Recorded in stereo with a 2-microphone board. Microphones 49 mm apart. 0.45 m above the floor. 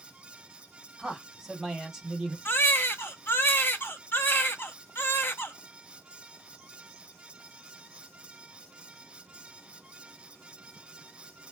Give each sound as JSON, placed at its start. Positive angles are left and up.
{"t": 1.0, "sound": "a man speaking", "side_deg": -10, "distance_m": 1.1}
{"t": 2.5, "sound": "a baby crying", "side_deg": 50, "distance_m": 0.5}